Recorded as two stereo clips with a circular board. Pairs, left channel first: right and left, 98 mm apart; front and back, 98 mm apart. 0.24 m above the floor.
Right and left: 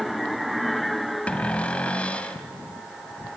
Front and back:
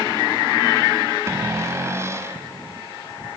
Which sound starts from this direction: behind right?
A cupboard door, at 1.3 s.